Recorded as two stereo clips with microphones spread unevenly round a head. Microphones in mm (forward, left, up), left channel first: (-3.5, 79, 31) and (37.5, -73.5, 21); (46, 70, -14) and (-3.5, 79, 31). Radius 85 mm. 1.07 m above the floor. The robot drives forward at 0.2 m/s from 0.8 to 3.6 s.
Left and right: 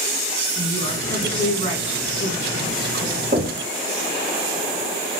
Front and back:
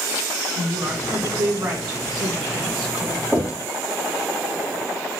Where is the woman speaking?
165° left, 6 m; by 3.2 s 170° left, 6.5 m.